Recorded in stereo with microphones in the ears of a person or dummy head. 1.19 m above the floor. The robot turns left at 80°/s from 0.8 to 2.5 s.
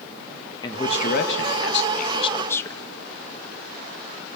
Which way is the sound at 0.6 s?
150° left.